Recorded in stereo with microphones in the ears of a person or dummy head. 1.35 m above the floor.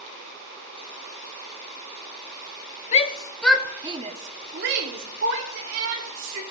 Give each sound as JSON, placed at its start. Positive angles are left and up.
{"t": 2.9, "sound": "a shout", "side_deg": 35, "distance_m": 0.6}